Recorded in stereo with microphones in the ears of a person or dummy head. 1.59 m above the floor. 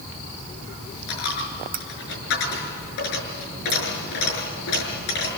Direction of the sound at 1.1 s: 65° left (ahead or behind).